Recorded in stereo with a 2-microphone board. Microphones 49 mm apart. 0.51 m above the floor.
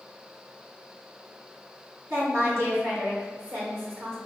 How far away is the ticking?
No ticking in this recording.